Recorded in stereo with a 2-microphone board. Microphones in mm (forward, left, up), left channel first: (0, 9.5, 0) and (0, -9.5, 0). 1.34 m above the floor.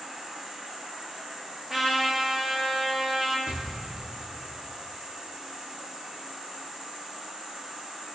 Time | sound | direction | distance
0.0 | an insect | 50° right (ahead or behind) | 4 m
1.7 | a trumpet | 25° right (ahead or behind) | 2 m
3.5 | an explosion | 75° right (ahead or behind) | 1.5 m